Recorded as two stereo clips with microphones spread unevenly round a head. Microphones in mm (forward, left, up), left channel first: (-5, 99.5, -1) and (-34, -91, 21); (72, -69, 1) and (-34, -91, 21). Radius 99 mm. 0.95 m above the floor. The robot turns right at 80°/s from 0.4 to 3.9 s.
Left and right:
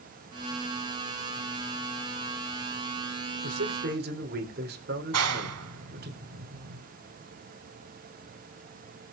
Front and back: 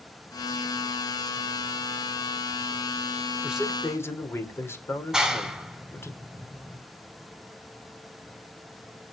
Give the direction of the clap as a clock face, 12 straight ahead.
3 o'clock.